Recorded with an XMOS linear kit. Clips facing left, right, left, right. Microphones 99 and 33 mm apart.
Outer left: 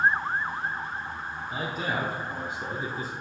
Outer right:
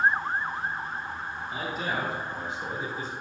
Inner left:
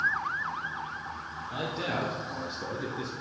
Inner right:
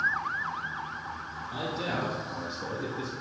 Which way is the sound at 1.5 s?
60° left (ahead or behind).